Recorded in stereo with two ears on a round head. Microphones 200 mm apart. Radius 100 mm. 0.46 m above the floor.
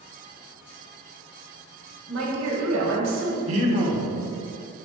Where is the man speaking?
30° right (ahead or behind), 0.9 m.